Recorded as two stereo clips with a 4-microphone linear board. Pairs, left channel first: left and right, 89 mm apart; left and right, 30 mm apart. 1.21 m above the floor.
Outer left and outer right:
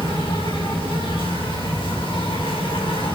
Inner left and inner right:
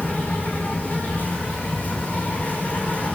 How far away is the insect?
About 7 m.